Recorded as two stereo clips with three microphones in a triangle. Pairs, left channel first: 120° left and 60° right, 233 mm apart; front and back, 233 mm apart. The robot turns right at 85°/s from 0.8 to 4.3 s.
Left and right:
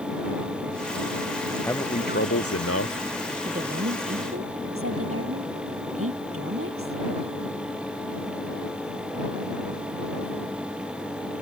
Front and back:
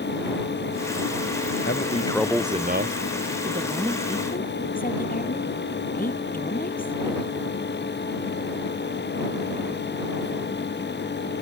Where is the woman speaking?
120° right; by 7.0 s 50° right.